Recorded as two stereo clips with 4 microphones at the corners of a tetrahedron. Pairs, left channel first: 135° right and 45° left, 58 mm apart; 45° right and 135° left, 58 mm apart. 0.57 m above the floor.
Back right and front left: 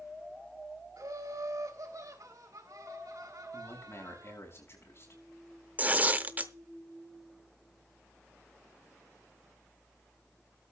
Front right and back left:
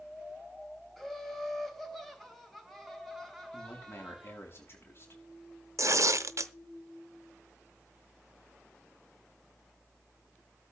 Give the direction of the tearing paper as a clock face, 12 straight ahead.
8 o'clock.